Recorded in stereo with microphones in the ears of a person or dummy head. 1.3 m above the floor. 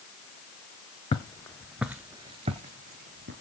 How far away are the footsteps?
About 1.3 m.